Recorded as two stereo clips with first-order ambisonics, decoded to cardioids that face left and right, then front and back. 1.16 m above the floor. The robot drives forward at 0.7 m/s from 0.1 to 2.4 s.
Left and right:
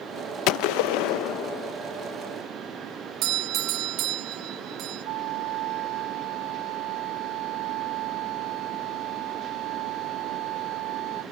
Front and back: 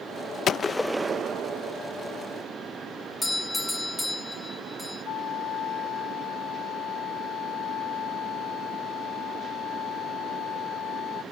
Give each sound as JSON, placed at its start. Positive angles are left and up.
{"t": 0.5, "sound": "a gunshot", "azimuth_deg": 60}
{"t": 3.2, "sound": "a doorbell", "azimuth_deg": -85}
{"t": 5.0, "sound": "a flute", "azimuth_deg": -55}